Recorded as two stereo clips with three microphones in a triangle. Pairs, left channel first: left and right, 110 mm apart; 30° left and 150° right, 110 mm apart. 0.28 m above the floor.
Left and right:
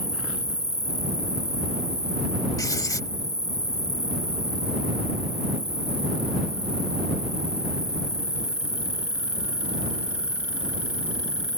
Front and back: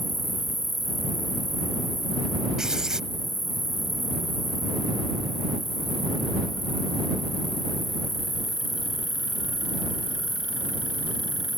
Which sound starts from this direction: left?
An insect, at 0.0 s.